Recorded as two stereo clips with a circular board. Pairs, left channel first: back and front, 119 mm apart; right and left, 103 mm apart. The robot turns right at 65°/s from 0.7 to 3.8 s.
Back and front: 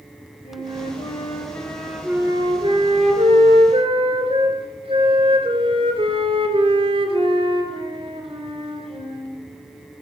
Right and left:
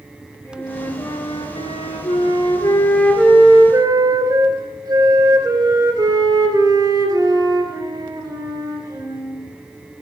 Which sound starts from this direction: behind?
A flute, at 0.5 s.